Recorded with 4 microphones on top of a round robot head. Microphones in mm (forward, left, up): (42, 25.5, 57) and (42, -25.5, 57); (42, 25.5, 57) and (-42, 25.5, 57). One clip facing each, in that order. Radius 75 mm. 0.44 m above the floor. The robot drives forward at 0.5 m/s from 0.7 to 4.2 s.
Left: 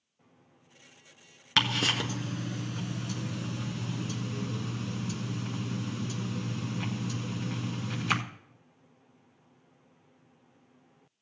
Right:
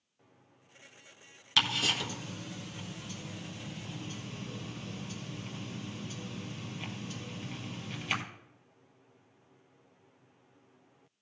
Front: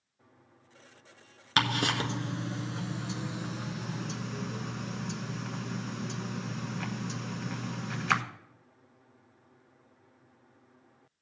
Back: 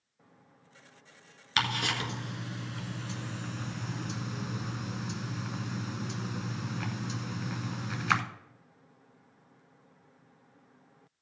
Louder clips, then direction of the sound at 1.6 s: Left 3 dB, front 3 dB; 45° left.